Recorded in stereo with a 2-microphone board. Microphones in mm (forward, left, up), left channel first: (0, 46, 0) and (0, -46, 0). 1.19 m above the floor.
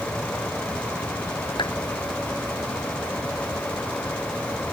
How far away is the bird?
No bird in this recording.